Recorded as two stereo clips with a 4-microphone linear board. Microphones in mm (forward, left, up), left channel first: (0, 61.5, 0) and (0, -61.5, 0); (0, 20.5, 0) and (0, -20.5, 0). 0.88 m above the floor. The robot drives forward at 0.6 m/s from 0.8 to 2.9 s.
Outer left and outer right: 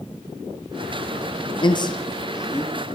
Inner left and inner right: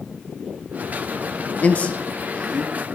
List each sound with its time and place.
1.6 s a man speaking: 40° left (ahead or behind), 0.6 m; by 2.8 s 20° left (ahead or behind), 1.0 m